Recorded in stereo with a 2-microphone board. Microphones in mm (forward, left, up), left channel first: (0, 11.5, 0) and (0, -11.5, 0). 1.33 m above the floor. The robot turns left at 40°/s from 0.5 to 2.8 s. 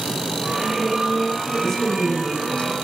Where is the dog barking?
No dog barking in this recording.